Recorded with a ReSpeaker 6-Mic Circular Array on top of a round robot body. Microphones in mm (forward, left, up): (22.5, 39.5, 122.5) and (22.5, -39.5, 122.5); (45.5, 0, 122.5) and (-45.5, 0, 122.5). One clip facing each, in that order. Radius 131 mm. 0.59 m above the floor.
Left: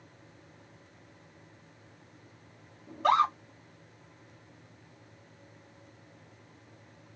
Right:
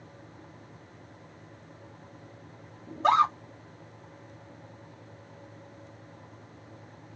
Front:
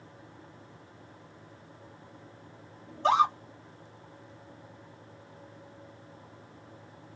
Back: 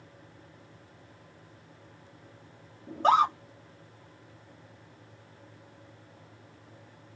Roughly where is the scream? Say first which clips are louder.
Right 2 dB, back 1 dB; behind right.